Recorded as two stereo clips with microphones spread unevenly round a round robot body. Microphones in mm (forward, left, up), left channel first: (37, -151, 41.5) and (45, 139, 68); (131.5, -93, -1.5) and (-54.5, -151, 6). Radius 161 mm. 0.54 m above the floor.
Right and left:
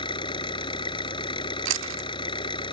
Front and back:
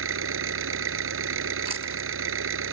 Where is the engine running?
165° right.